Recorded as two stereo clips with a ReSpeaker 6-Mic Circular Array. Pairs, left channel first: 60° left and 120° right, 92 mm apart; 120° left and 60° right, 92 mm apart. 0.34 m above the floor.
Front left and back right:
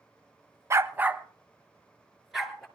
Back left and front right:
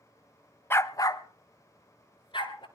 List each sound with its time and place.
0.7 s a dog barking: 175° right, 0.6 m; by 2.6 s 150° left, 2.5 m